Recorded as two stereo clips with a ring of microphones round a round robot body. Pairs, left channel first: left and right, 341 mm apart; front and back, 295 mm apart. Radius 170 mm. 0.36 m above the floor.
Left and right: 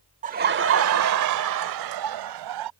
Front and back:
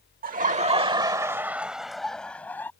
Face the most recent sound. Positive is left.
turn(degrees=-85)